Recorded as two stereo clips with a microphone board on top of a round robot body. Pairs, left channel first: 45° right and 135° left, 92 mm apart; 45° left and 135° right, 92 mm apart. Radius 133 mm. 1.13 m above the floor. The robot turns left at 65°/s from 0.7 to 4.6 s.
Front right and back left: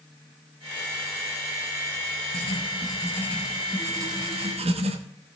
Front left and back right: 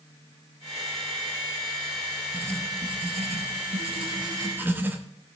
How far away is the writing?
About 1.1 m.